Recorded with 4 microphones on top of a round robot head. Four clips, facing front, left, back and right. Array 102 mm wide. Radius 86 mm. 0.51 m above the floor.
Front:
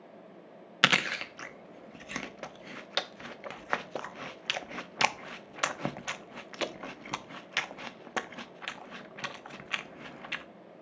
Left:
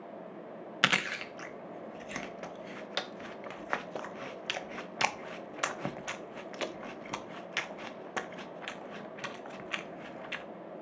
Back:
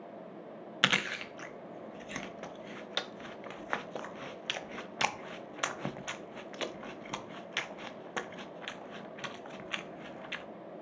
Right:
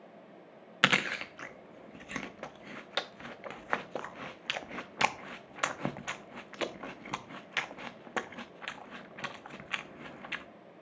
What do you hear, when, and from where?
0.8 s chewing: 25° right, 0.6 m